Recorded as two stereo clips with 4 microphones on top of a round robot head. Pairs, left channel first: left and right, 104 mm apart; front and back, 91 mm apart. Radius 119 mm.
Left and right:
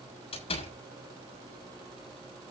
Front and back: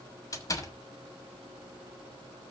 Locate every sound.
0.3 s a door slam: 50° left, 6.5 m